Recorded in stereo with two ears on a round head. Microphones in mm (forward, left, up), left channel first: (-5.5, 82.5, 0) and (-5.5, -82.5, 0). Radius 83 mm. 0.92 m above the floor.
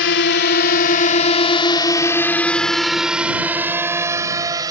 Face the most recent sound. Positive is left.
turn(degrees=-20)  # may be behind; listen again after turning